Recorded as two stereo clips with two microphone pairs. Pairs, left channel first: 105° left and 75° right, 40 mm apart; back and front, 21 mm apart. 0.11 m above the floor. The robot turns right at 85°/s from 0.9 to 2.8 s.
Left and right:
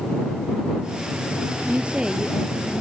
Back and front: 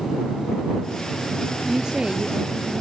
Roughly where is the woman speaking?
Ahead right.